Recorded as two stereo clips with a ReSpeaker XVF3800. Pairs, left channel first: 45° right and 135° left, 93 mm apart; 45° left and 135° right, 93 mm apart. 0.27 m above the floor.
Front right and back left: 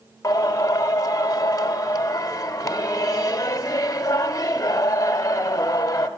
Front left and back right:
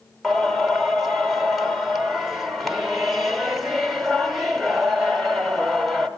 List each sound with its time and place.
0.2 s singing: 50° right, 1.0 m